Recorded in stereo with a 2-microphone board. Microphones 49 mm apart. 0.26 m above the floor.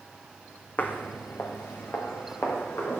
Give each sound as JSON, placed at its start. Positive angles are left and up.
{"t": 0.8, "sound": "footsteps", "side_deg": 35, "distance_m": 0.6}